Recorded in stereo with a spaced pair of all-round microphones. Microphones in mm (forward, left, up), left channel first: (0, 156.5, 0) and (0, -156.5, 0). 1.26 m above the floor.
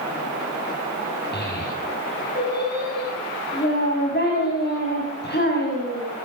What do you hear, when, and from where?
1.3 s a child speaking: 30° left (ahead or behind), 7 m